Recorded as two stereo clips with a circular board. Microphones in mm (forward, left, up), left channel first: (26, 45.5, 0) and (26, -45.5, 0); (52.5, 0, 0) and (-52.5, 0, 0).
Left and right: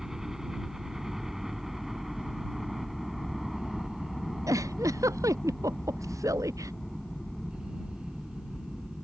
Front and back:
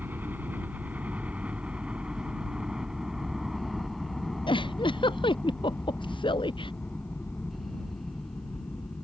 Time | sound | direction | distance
0.0 | a helicopter | 165° right | ?
4.5 | a giggle | 40° right | ?